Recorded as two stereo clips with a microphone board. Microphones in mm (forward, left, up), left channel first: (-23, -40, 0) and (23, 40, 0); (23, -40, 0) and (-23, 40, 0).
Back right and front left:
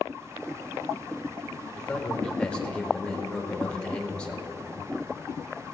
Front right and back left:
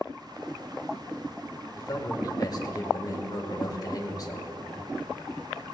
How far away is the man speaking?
About 1.7 m.